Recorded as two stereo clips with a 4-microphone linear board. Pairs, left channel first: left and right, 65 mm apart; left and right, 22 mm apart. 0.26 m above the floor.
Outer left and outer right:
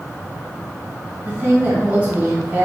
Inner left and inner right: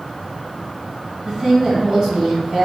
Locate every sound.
1.2 s a woman speaking: 30° right (ahead or behind), 1.9 m